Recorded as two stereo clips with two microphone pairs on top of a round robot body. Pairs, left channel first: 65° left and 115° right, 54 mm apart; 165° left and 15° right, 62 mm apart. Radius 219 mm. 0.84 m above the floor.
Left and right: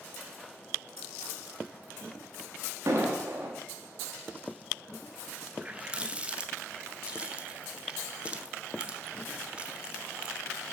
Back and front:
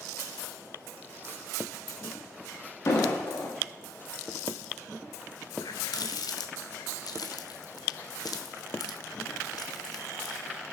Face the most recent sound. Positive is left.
turn(degrees=175)